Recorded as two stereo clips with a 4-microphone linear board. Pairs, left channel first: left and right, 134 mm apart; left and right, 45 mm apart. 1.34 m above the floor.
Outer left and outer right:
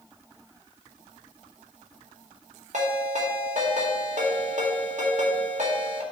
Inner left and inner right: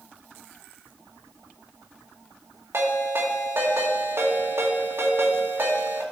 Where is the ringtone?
60° right (ahead or behind), 1.9 m.